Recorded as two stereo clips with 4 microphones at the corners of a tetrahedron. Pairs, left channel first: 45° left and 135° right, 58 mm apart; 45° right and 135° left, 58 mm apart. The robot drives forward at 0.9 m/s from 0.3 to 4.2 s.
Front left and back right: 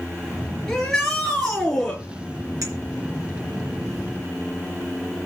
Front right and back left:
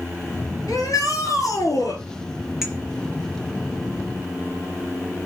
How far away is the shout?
About 5 m.